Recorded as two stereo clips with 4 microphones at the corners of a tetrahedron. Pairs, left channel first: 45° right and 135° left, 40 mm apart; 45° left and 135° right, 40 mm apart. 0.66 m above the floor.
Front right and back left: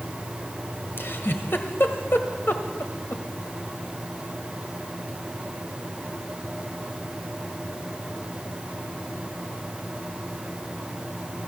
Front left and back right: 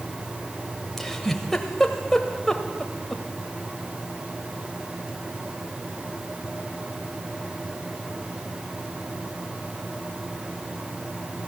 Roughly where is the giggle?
Ahead right.